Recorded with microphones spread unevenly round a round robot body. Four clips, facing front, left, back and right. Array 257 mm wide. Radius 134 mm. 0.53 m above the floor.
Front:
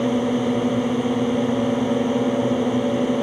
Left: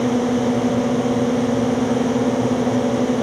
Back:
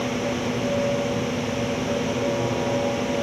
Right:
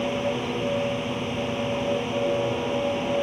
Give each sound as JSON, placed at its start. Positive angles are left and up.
{"t": 0.0, "sound": "a drone", "azimuth_deg": 55}